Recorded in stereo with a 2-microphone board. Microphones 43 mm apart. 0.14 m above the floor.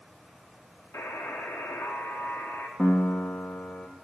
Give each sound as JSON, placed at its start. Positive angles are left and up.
{"t": 0.9, "sound": "a buzzer", "side_deg": 85, "distance_m": 2.5}
{"t": 2.8, "sound": "a piano", "side_deg": 40, "distance_m": 1.6}